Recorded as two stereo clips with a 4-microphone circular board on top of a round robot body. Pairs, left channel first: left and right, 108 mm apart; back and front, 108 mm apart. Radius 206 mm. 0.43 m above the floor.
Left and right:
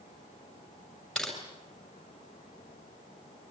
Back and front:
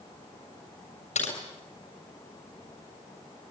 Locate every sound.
1.1 s typing on a keyboard: 175° left, 7 m